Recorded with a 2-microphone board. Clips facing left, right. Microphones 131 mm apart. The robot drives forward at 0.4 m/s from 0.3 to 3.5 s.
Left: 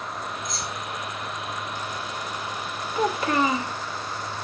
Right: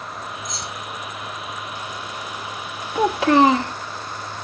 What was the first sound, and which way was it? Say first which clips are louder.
Keys jangling: even; 5° left (ahead or behind).